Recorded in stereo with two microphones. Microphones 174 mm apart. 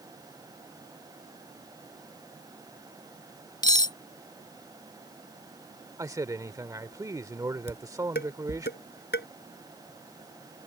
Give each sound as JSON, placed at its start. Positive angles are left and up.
{"t": 3.6, "sound": "cutlery clinking", "side_deg": 20}
{"t": 6.0, "sound": "a man speaking", "side_deg": -20}
{"t": 7.7, "sound": "dishes clattering", "side_deg": 80}